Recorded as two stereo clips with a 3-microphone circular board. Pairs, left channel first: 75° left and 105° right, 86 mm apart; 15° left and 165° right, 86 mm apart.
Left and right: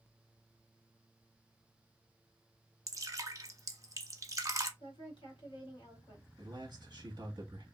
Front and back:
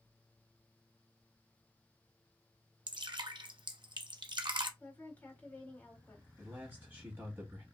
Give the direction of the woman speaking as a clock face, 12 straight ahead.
9 o'clock.